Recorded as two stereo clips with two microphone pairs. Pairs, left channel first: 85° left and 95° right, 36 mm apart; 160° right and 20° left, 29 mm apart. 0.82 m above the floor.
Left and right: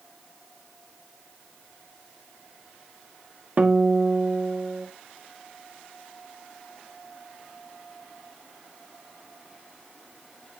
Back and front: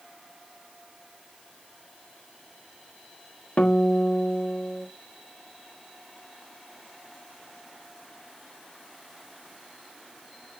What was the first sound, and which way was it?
A guitar, 135° right.